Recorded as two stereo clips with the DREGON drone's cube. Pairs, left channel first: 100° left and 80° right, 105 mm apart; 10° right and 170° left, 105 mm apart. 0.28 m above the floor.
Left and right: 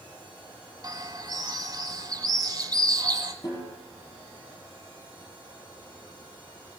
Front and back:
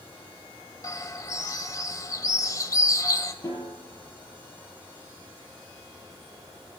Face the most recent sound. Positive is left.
turn(degrees=45)